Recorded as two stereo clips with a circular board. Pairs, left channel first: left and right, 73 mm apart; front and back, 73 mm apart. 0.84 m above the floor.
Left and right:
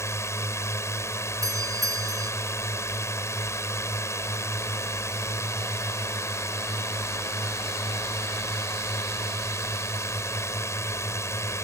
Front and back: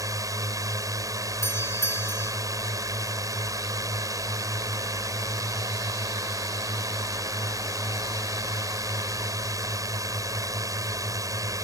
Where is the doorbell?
55° right.